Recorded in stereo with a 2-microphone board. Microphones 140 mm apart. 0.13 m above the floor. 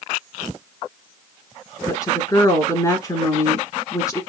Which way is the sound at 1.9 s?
25° left (ahead or behind).